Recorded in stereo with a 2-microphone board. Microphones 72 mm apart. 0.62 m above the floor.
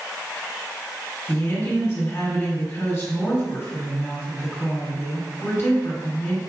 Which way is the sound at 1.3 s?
40° left (ahead or behind).